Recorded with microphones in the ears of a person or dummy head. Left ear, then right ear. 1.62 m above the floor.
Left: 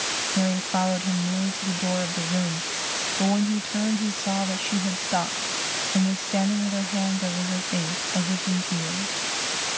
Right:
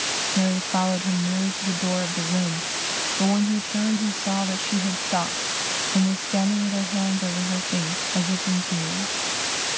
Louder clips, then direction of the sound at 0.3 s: Right 1 dB; 10° left (ahead or behind).